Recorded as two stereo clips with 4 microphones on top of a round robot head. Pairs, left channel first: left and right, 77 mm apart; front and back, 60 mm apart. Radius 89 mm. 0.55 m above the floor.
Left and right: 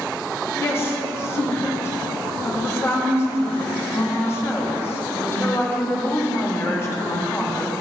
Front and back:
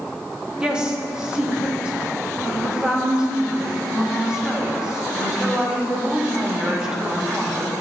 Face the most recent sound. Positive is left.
turn(degrees=110)